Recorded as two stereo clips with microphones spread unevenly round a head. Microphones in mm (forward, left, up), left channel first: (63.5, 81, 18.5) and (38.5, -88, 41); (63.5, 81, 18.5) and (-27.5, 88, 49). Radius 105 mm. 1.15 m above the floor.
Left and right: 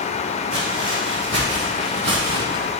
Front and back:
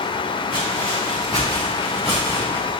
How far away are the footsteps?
About 3.5 m.